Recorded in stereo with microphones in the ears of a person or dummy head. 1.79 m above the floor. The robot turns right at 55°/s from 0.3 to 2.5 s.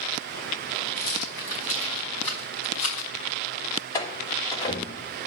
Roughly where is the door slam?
Centre.